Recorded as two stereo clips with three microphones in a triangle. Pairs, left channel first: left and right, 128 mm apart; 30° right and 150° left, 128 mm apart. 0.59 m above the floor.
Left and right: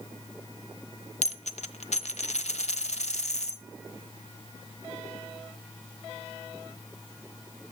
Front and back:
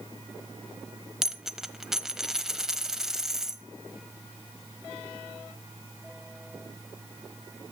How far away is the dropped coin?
About 1.1 m.